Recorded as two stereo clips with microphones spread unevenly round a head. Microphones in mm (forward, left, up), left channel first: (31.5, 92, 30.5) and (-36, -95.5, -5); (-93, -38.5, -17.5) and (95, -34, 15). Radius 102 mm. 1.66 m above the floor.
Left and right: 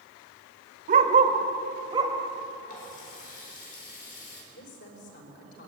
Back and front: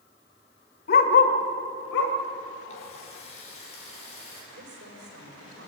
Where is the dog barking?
155° right, 1.8 m; by 2.1 s 175° left, 2.5 m.